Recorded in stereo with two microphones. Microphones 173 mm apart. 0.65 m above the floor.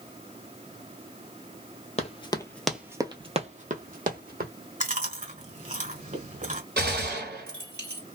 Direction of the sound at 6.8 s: 70° right (ahead or behind).